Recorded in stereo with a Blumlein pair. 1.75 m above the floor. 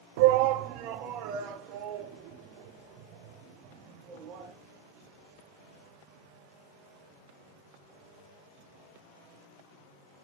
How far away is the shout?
About 0.5 m.